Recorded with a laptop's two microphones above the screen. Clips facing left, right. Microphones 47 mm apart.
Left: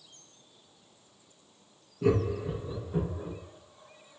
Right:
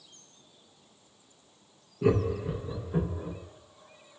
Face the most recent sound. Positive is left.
turn(degrees=-15)  # may be behind; listen again after turning